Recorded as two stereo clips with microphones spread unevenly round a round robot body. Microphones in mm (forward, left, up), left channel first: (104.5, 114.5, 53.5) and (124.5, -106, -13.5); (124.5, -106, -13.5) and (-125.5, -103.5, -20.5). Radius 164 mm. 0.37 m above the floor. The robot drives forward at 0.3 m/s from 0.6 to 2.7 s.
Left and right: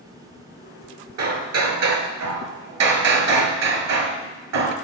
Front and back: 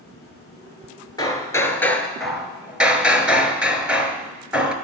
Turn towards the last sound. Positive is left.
turn(degrees=-95)